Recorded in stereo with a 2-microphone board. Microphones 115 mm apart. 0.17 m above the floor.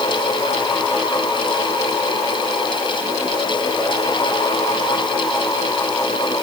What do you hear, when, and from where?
Only background noise.